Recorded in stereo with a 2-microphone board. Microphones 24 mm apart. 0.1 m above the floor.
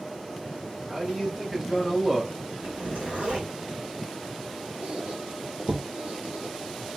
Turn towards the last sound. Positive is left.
turn(degrees=-65)  # may be behind; listen again after turning